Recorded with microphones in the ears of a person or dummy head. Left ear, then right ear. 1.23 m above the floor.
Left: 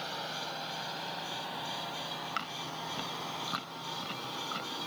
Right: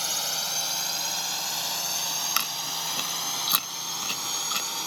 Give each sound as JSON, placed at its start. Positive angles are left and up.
{"t": 0.0, "sound": "a drone", "side_deg": -80}
{"t": 2.4, "sound": "chewing", "side_deg": -85}